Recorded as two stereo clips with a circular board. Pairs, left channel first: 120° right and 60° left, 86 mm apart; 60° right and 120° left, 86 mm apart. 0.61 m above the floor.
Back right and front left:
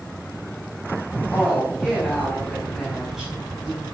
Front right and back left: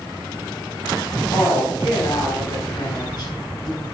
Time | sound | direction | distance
1.3 | a woman speaking | 40° right | 4.5 m